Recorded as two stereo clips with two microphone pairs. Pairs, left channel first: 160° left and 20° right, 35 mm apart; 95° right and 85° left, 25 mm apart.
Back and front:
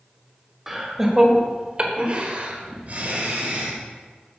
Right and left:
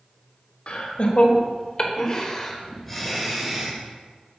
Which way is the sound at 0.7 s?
100° right.